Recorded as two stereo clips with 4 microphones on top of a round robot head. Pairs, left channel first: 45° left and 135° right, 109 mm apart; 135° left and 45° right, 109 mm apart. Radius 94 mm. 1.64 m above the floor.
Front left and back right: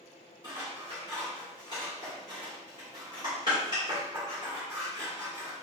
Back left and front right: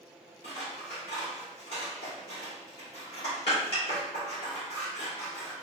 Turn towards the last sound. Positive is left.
turn(degrees=95)